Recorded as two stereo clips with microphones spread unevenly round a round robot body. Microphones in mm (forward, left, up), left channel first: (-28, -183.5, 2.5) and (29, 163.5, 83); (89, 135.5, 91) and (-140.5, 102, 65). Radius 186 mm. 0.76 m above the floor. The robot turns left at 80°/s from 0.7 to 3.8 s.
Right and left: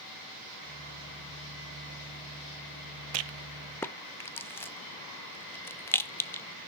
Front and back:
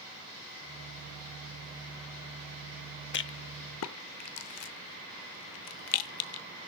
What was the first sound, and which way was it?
A rattle, 40° left.